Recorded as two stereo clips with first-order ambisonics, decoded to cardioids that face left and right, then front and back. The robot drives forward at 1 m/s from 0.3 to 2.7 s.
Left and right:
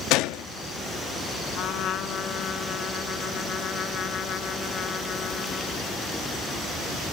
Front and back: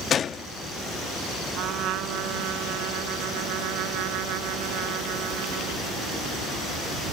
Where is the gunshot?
60° left; by 0.5 s 75° left.